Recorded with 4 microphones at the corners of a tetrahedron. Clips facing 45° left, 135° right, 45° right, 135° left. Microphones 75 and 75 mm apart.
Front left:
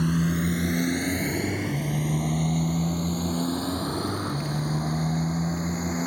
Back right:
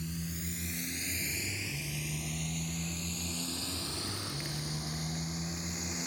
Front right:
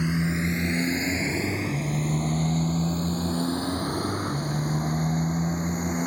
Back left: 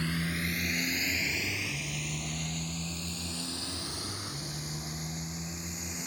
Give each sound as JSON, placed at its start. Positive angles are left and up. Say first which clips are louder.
{"t": 0.0, "sound": "a motorcycle", "louder": "front left 16 dB, front right 7 dB", "azimuth_deg": 30}